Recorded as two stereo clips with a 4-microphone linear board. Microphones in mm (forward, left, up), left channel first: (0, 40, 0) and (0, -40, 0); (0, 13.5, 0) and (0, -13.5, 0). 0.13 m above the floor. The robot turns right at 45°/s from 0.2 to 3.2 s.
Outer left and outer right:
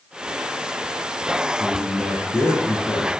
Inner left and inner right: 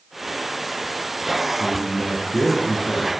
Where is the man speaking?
15° right, 3.5 m; by 3.1 s 55° left, 3.5 m.